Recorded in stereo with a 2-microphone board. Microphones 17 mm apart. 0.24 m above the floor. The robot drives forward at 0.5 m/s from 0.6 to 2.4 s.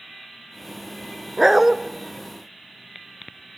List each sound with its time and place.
1.4 s a dog barking: 15° right (ahead or behind), 1.0 m; by 1.8 s 20° right (ahead or behind), 0.8 m